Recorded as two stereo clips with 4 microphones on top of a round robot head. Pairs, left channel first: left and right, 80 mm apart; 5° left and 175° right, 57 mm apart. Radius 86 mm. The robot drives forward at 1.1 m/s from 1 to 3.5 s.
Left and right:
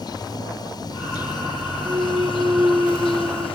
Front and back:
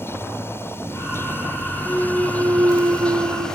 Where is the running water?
50° left; by 3.6 s 85° left.